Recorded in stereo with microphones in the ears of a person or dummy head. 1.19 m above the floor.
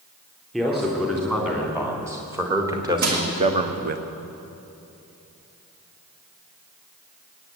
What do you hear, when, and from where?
0.5 s a man speaking: 5° right (ahead or behind), 3.5 m; by 4.0 s 55° right (ahead or behind), 0.8 m
3.0 s crushing: 60° right (ahead or behind), 2 m